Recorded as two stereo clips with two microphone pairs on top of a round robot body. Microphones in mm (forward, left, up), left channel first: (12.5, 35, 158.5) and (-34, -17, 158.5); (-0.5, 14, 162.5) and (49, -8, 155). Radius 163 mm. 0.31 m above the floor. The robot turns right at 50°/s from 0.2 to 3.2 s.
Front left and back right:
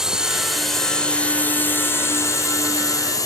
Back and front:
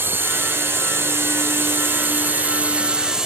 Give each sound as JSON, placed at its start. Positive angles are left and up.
{"t": 0.0, "sound": "a drone", "azimuth_deg": -50}